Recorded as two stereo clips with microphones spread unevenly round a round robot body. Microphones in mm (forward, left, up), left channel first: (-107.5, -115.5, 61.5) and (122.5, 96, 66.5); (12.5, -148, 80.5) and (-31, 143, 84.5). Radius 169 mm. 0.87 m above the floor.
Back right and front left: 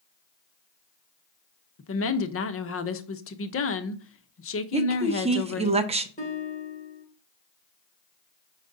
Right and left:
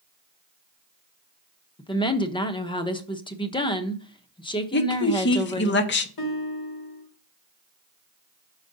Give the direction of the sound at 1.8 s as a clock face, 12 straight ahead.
5 o'clock.